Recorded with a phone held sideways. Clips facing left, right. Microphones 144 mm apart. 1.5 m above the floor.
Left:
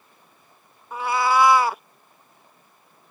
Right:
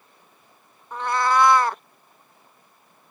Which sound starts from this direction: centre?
A cat meowing, at 0.9 s.